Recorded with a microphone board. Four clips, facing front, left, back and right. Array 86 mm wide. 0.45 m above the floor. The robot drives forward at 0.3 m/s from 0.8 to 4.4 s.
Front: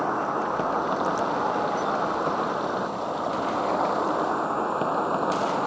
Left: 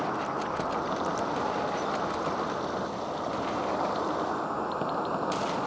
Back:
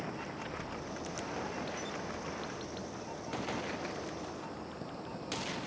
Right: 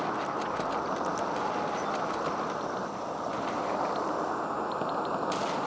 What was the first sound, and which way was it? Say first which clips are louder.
An insect: left 1 dB, front 16 dB; straight ahead.